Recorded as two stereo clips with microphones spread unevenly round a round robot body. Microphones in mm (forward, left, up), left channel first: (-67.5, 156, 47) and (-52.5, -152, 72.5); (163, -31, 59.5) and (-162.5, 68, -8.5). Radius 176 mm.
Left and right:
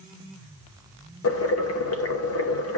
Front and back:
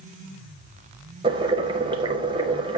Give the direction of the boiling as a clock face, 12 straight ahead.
9 o'clock.